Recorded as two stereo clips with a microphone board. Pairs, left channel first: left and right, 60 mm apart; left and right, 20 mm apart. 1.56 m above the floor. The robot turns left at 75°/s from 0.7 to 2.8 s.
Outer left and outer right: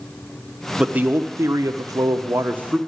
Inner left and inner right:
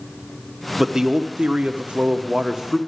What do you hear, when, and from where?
0.8 s a man speaking: 15° right, 0.6 m; by 2.8 s 165° right, 0.6 m